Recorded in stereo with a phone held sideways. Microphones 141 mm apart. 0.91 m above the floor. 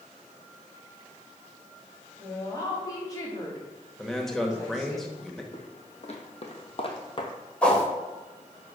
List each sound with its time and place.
2.2 s a woman speaking: 25° left (ahead or behind), 2 m
4.0 s a man speaking: centre (ahead or behind), 1.1 m
5.5 s footsteps: 55° left (ahead or behind), 1.7 m; by 7.3 s 35° left (ahead or behind), 1.0 m
7.6 s a whoosh: 10° left (ahead or behind), 1.8 m